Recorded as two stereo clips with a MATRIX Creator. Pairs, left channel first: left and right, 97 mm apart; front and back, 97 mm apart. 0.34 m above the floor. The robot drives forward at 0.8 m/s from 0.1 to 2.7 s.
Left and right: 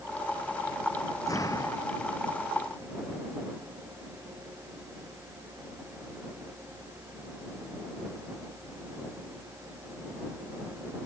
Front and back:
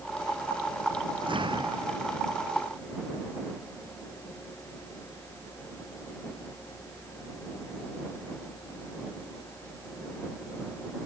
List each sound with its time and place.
1.3 s an explosion: 145° left